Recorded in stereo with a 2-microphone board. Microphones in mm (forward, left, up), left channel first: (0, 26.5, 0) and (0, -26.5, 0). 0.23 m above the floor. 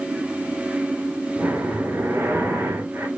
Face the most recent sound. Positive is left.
turn(degrees=-45)  # may be behind; listen again after turning